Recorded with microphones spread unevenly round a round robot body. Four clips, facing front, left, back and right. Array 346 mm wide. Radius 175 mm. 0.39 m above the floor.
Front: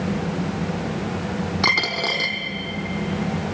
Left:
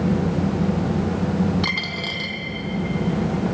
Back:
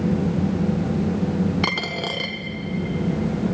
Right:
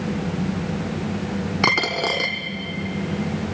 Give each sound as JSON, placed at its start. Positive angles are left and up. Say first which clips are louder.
{"t": 1.6, "sound": "a dropped coin", "louder": "right 6 dB, front 2 dB", "azimuth_deg": -75, "distance_m": 1.9}